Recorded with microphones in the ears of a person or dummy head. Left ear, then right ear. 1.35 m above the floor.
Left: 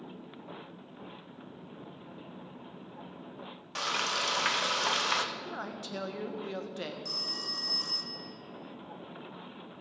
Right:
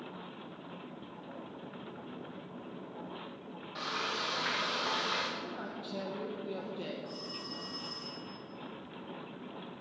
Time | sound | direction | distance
3.8 | frying | 60° left (ahead or behind) | 1.1 m
5.3 | a man speaking | 55° left (ahead or behind) | 1.2 m
7.0 | a phone ringing | 60° left (ahead or behind) | 1.1 m